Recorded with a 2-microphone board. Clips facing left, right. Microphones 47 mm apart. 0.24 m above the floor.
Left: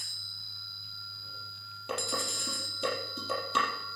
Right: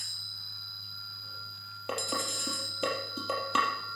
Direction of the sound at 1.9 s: 35° right (ahead or behind).